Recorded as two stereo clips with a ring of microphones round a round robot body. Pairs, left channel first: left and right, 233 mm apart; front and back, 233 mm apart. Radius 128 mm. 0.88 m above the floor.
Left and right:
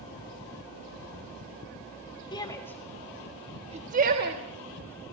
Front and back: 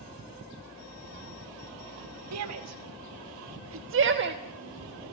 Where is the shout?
165° left, 1.5 m; by 5.1 s 120° right, 1.7 m.